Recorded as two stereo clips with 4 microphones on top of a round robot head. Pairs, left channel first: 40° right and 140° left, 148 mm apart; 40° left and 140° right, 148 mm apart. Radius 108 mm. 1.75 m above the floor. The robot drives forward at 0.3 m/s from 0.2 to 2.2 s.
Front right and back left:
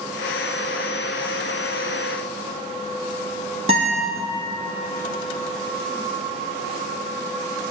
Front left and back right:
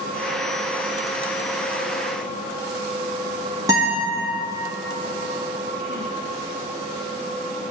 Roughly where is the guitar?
Behind.